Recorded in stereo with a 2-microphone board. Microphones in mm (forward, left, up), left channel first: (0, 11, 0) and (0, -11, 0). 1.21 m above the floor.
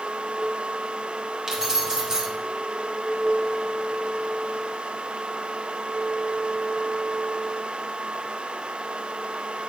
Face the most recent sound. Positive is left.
turn(degrees=-30)  # may be behind; listen again after turning